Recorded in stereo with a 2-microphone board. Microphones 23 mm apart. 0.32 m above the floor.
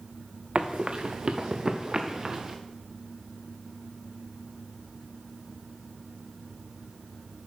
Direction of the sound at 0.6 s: 50° right (ahead or behind).